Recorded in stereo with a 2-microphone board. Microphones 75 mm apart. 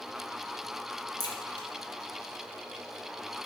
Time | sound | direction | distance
1.2 | a crack | 80° left | 2.0 m